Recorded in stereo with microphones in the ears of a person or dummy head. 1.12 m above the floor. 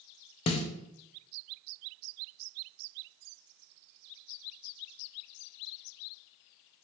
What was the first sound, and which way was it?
A snare drum, 30° left (ahead or behind).